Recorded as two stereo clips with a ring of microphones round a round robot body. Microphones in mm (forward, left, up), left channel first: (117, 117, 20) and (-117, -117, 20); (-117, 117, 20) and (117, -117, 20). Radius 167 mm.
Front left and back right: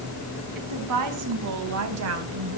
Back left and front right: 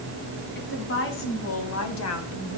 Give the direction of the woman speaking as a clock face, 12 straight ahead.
6 o'clock.